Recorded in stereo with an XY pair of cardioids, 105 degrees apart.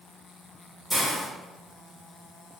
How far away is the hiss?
About 1.4 m.